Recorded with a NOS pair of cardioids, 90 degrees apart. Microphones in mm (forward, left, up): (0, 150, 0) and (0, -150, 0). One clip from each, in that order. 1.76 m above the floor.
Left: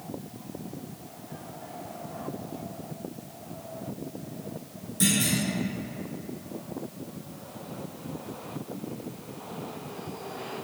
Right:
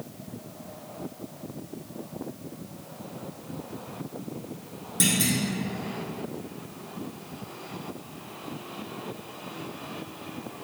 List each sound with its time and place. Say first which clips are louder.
5.0 s a clunk: right 1 dB; 55° right, 1.1 m